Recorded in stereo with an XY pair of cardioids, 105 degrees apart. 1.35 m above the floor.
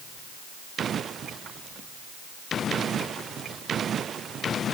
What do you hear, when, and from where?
Only background noise.